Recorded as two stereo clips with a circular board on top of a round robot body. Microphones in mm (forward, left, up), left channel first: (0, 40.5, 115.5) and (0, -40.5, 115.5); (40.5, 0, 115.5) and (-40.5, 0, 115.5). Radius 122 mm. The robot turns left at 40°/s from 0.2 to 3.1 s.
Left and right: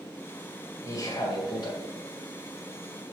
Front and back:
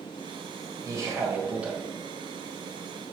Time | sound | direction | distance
0.8 | a man speaking | 135° left | 2 m